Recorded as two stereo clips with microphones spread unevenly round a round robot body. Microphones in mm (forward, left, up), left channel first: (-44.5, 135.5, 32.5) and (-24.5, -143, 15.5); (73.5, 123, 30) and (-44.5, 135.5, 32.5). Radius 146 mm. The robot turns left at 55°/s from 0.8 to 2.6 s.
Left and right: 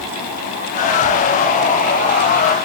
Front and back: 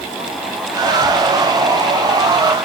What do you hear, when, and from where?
Only background noise.